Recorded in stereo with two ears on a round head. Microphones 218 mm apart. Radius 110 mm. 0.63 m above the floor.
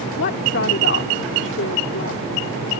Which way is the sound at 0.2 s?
50° left (ahead or behind).